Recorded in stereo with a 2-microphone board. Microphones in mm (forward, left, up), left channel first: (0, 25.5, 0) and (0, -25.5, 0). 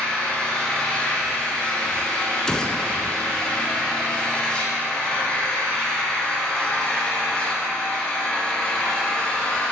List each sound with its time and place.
0.0 s an engine running: 15° left (ahead or behind), 1.7 m
2.5 s a gunshot: 15° left (ahead or behind), 0.5 m